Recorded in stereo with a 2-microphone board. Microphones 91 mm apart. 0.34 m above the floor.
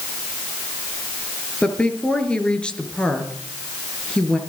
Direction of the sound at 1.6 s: 10° left (ahead or behind).